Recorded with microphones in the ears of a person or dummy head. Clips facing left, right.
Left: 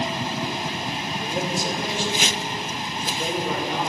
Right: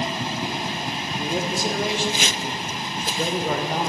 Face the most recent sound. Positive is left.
turn(degrees=-40)  # may be behind; listen again after turning